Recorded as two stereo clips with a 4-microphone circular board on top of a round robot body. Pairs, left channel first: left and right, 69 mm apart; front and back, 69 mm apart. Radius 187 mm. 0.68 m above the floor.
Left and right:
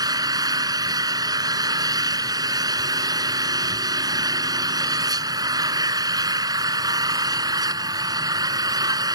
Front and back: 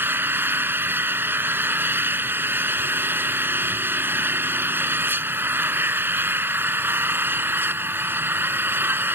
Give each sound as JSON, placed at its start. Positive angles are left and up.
{"t": 0.0, "sound": "an engine running", "azimuth_deg": -120}